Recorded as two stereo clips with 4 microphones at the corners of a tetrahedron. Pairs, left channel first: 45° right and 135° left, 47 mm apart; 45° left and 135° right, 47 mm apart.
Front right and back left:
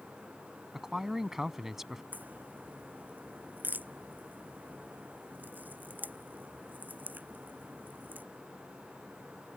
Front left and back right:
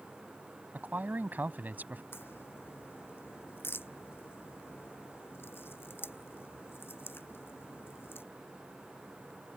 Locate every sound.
0.7 s a man speaking: 145° right
2.1 s a crack: 80° left